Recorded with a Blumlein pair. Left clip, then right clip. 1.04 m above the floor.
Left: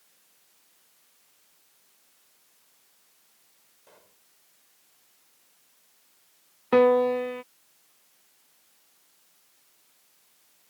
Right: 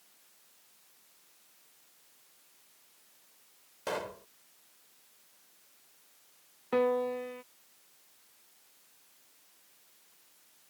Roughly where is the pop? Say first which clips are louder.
Right 23 dB; ahead right.